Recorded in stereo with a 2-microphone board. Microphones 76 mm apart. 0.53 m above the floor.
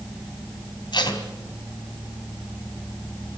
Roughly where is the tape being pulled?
Left.